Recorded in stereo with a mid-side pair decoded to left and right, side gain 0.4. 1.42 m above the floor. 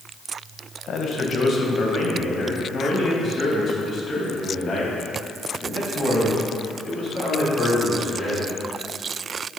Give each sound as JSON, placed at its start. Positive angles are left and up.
{"t": 0.9, "sound": "a man speaking", "azimuth_deg": 55, "distance_m": 1.5}